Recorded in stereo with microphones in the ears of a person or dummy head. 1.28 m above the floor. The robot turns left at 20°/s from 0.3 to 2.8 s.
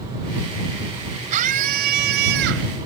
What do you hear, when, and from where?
1.3 s a scream: 40° right (ahead or behind); by 2.7 s 70° right (ahead or behind)